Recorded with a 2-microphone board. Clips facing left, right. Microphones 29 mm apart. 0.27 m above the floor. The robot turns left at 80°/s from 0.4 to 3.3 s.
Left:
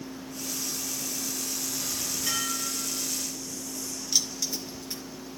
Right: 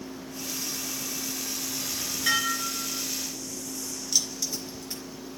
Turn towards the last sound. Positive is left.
turn(degrees=10)  # may be behind; listen again after turning